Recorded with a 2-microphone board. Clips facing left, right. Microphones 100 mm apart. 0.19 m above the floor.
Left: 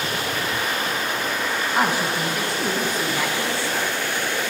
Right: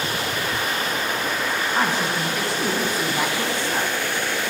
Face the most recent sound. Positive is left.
turn(degrees=-25)  # may be behind; listen again after turning